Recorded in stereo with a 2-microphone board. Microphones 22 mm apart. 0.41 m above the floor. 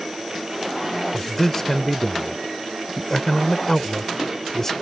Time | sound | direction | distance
1.1 | a man speaking | 20° left (ahead or behind) | ?